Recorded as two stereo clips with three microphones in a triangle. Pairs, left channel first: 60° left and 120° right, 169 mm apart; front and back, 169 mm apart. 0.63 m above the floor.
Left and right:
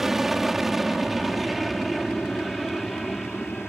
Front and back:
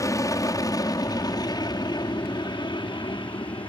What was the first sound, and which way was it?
An aircraft, 35° right.